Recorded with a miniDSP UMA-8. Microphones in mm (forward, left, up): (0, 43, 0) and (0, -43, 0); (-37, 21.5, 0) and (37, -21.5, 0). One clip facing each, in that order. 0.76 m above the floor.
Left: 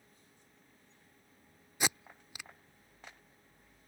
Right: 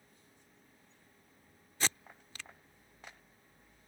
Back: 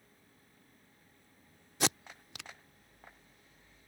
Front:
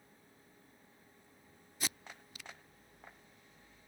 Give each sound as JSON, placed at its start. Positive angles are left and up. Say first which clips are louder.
{"t": 1.8, "sound": "tape being pulled", "louder": "left 2 dB, back 10 dB", "azimuth_deg": 165}